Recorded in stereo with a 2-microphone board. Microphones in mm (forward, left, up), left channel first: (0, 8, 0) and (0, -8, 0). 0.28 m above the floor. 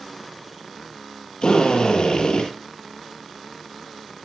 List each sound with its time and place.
1.4 s a drill: 75° left (ahead or behind), 8.5 m